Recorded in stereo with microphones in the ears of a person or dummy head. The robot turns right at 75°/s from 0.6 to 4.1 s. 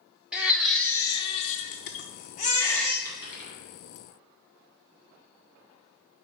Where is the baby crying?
10° right, 0.5 m; by 3.0 s 170° left, 0.5 m.